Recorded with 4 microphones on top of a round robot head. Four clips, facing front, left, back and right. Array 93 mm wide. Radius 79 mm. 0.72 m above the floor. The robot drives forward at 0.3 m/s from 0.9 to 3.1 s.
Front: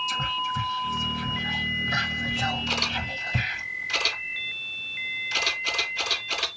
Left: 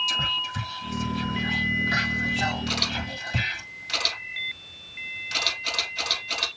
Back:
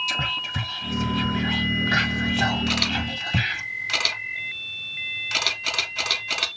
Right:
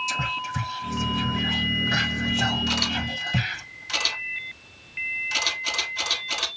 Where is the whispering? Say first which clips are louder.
Right 2 dB, front 2 dB; 160° right, 1.6 m; by 3.6 s 165° right, 2 m.